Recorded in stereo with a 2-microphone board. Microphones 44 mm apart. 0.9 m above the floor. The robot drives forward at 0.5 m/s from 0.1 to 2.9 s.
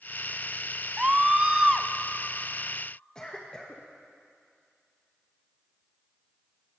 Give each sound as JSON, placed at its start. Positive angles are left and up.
{"t": 1.0, "sound": "a scream", "side_deg": -25, "distance_m": 0.6}
{"t": 3.1, "sound": "a cough", "side_deg": 15, "distance_m": 1.2}